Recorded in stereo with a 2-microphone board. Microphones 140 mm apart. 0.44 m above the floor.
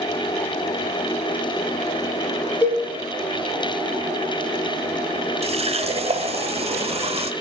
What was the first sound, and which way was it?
A cowbell, 20° left (ahead or behind).